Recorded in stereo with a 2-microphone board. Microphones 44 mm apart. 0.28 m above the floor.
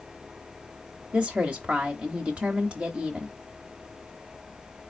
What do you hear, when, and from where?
1.1 s a woman speaking: 30° right (ahead or behind), 1.0 m